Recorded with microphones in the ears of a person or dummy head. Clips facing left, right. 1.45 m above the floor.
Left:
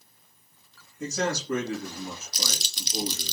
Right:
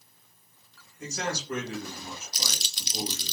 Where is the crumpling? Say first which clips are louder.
Left 3 dB; 40° left (ahead or behind), 0.7 m.